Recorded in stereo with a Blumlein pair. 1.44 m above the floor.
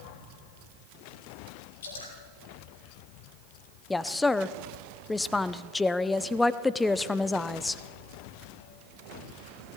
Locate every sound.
1.8 s dripping: 65° left, 6 m
3.9 s a woman speaking: 10° left, 0.6 m